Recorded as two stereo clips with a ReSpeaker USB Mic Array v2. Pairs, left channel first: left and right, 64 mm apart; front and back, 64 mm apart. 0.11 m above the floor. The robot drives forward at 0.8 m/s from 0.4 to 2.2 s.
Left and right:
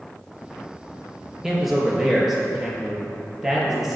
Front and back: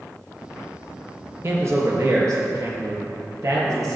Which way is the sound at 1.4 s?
170° right.